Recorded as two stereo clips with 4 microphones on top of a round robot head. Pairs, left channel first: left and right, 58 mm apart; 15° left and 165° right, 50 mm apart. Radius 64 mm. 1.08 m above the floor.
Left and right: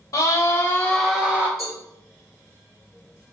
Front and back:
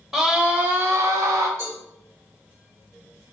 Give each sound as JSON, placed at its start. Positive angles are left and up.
{"t": 0.1, "sound": "a scream", "azimuth_deg": 110, "distance_m": 0.8}
{"t": 1.6, "sound": "a cowbell", "azimuth_deg": -125, "distance_m": 2.5}